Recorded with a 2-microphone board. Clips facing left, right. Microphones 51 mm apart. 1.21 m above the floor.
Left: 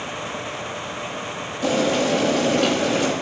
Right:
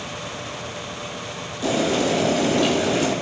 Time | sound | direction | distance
1.6 | boiling | 35° left (ahead or behind) | 7 m